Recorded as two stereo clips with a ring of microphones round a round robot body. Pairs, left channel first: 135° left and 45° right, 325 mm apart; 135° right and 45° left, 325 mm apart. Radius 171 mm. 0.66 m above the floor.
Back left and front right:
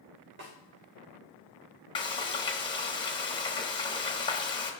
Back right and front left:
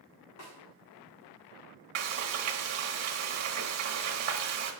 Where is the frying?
65° left, 1.2 m.